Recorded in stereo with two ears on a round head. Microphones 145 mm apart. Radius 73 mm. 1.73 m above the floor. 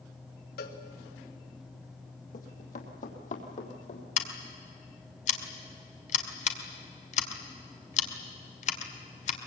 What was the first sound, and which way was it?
A cowbell, 60° left (ahead or behind).